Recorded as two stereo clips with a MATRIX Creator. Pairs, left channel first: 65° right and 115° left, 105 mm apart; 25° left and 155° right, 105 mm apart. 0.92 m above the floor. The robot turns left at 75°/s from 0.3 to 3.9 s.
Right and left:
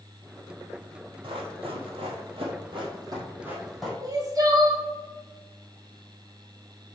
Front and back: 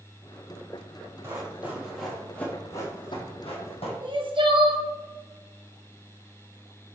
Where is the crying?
165° left, 1.3 m.